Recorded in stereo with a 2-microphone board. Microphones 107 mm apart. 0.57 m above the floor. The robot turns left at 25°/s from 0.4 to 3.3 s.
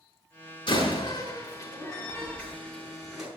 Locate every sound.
0.7 s a door slam: 55° left (ahead or behind), 4.5 m; by 3.3 s 10° right (ahead or behind), 4.5 m